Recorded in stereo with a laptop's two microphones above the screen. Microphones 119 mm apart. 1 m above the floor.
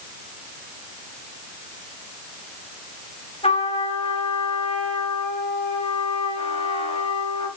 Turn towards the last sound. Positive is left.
turn(degrees=60)  # may be behind; listen again after turning